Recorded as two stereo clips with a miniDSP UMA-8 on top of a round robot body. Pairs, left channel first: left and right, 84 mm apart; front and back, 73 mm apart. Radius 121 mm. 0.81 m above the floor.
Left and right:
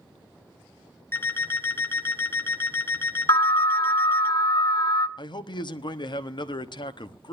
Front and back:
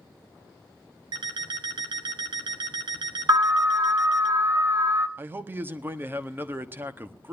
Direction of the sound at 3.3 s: 130° left.